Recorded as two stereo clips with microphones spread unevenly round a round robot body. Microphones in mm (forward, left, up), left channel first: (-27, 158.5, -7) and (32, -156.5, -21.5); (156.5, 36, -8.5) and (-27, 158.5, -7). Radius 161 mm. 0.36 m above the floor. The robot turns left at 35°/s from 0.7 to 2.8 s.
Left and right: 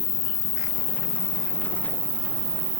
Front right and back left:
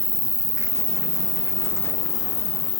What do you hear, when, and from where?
0.0 s an insect: 45° left, 6.5 m; by 2.8 s 30° right, 6.5 m